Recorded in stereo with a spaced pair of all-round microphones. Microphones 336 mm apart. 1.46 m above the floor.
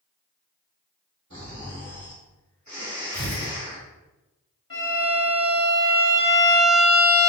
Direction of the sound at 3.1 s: 50° left (ahead or behind).